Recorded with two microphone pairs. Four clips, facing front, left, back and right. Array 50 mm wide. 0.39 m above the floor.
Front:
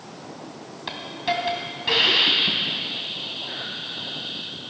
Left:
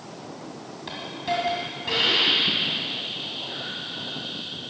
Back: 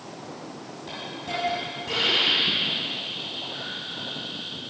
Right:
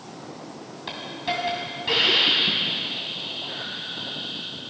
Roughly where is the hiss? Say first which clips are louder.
Left 1 dB, front 7 dB; ahead.